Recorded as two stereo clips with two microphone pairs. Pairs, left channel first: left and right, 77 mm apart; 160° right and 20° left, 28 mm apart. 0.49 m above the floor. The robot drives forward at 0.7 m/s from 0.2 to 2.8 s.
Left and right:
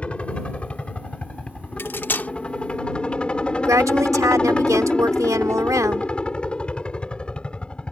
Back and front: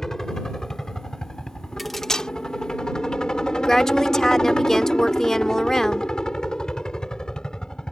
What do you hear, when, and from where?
0.0 s a helicopter: 145° left; by 7.9 s 155° left
1.8 s cutlery clinking: 100° left; by 2.3 s 145° left
3.6 s a woman speaking: 100° right